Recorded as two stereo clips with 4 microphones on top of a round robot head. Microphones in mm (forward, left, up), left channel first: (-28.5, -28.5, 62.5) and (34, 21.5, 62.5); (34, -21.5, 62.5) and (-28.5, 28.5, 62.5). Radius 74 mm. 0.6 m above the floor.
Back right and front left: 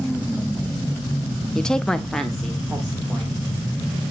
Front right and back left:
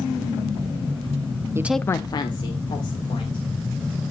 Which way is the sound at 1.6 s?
140° left.